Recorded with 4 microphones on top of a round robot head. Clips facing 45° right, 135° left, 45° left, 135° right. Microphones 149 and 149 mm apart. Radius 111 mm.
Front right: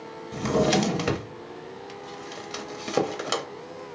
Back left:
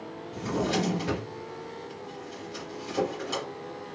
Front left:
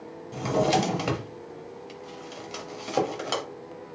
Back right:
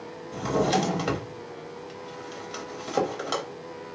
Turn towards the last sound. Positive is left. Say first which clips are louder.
# front right 6 dB, front left 1 dB
turn(degrees=-35)